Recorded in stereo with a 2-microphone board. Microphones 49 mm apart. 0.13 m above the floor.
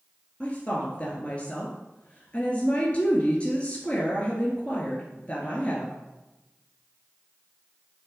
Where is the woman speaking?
25° left (ahead or behind), 1.6 m.